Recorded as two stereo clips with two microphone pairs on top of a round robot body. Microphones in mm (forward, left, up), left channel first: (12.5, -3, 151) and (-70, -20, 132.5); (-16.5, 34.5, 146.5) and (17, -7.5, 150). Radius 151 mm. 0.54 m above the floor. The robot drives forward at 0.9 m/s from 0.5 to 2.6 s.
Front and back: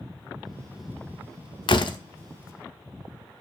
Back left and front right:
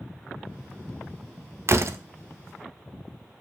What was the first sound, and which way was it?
A door slam, 15° right.